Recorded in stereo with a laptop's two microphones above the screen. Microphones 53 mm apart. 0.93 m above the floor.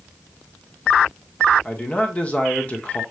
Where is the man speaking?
30° left (ahead or behind), 1.1 m.